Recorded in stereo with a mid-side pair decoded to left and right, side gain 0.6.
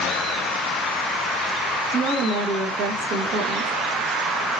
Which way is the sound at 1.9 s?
70° right.